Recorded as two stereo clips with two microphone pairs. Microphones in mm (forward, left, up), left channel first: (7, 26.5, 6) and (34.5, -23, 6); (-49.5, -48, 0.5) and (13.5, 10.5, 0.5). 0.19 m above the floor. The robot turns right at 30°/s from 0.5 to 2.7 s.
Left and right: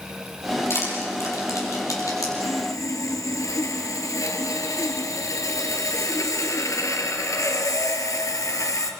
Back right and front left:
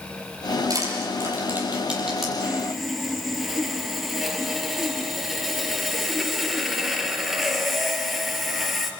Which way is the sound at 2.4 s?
120° left.